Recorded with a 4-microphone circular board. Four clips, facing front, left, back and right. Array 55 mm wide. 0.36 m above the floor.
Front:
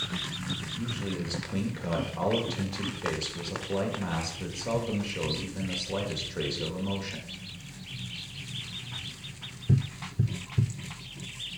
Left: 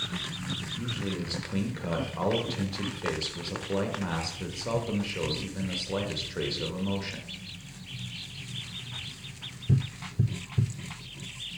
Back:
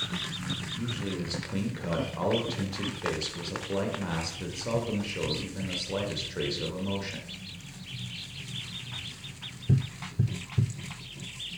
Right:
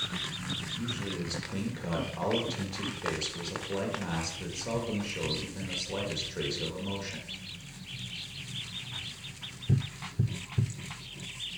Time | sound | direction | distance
0.8 | a man speaking | 105° left | 1.3 m